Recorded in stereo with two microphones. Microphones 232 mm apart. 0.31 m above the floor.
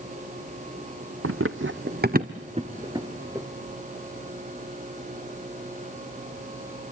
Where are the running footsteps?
70° right (ahead or behind), 0.8 m; by 3.5 s 10° right (ahead or behind), 1.5 m.